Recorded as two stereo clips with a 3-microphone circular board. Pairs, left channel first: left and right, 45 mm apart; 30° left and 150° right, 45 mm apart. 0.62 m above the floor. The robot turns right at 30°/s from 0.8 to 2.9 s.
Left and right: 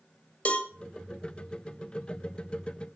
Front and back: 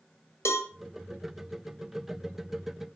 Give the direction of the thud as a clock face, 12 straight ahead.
I don't hear a thud.